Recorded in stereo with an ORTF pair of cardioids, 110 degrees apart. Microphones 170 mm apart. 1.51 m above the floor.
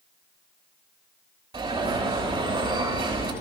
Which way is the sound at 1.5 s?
30° right.